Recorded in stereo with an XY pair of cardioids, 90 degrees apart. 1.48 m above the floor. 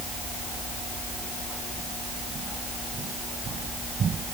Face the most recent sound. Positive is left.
No sound to turn to.